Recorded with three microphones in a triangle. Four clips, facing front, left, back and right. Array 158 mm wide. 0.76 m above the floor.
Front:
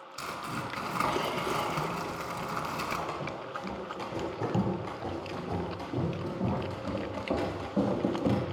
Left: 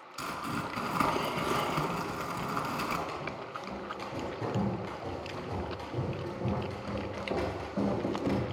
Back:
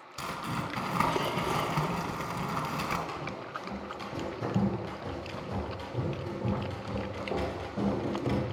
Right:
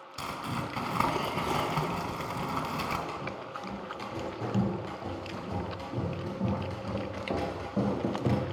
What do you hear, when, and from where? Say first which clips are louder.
0.2 s crumpling: even, back 1 dB; 120° right, 3.5 m
3.1 s running footsteps: right 1 dB, front 1 dB; 20° right, 8.5 m; by 8.4 s 40° right, 5.5 m